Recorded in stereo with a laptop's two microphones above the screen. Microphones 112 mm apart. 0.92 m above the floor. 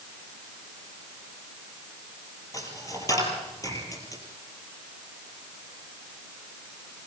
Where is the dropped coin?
30° left (ahead or behind), 4 m.